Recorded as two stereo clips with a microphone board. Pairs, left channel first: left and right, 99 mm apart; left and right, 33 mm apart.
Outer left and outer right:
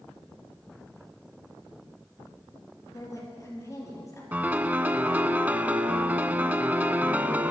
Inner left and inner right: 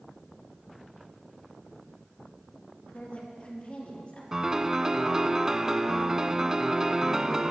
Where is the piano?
20° right (ahead or behind), 0.5 m.